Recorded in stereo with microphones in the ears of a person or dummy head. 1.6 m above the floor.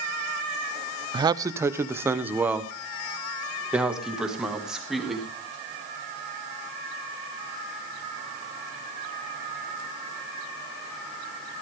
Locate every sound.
1.1 s a man speaking: 25° right (ahead or behind), 0.6 m; by 5.3 s 5° right (ahead or behind), 3.5 m